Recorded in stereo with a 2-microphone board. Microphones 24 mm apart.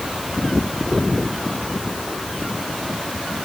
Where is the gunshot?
I don't hear a gunshot.